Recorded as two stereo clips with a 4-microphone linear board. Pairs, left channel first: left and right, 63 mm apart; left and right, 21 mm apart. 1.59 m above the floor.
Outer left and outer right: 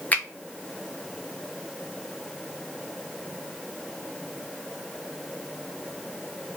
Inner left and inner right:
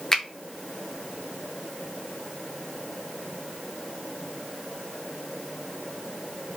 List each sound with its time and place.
0.1 s a finger snap: 25° left (ahead or behind), 0.7 m